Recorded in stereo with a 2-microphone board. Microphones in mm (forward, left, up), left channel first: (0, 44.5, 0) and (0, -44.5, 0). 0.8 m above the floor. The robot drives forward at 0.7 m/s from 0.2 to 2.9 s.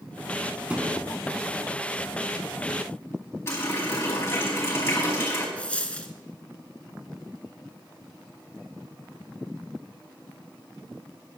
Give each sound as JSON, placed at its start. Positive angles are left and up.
{"t": 0.7, "sound": "a thud", "side_deg": -15, "distance_m": 2.5}
{"t": 3.5, "sound": "a running tap", "side_deg": 30, "distance_m": 4.0}
{"t": 5.6, "sound": "a dropped coin", "side_deg": 15, "distance_m": 1.1}